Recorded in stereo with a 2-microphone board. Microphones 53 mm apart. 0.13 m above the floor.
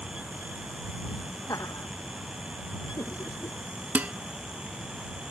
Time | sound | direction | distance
1.5 | laughter | 80° left | ?
4.0 | dishes clattering | 30° right (ahead or behind) | ?